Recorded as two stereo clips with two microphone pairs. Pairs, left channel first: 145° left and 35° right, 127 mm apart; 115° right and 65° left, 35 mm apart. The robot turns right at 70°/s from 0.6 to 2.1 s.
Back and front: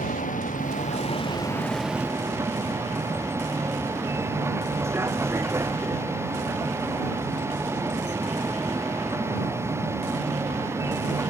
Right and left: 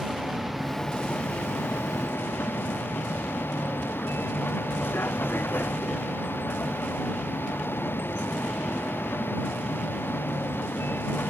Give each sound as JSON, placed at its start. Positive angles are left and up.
{"t": 0.0, "sound": "a vehicle", "azimuth_deg": 150}